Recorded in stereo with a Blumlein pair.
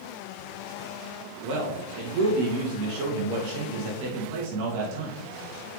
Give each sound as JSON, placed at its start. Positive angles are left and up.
{"t": 1.4, "sound": "a man speaking", "azimuth_deg": -50, "distance_m": 2.0}